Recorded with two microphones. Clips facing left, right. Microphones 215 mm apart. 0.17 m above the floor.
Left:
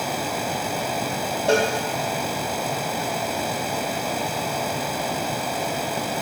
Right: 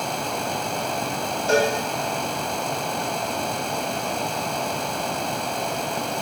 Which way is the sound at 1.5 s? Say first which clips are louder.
Even; 75° left (ahead or behind).